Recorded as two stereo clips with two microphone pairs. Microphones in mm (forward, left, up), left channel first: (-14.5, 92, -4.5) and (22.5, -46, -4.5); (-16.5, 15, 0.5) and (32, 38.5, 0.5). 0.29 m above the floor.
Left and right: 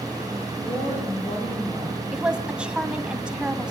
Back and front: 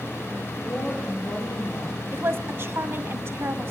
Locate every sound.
0.6 s a woman speaking: 155° left, 6.5 m
2.1 s a woman speaking: 5° left, 2.0 m